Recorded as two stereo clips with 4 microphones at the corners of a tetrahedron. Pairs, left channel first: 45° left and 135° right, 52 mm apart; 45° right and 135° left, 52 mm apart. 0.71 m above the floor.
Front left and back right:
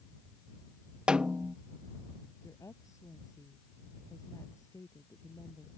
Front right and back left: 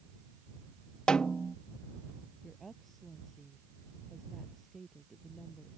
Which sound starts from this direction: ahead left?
A woman speaking, at 2.4 s.